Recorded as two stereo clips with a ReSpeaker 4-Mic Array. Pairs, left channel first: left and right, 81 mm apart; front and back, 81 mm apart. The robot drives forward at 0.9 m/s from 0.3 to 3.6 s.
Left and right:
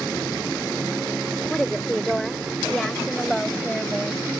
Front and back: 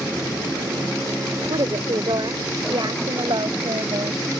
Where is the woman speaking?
175° left.